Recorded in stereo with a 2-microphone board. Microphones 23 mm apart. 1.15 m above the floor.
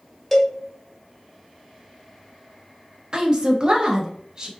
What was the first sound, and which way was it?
A cowbell, 5° left (ahead or behind).